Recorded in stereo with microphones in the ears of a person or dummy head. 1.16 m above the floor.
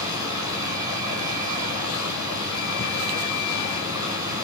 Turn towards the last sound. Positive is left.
turn(degrees=-20)  # may be behind; listen again after turning